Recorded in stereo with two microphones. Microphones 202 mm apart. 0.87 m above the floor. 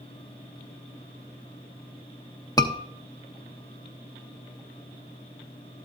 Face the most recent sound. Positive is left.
turn(degrees=20)  # may be behind; listen again after turning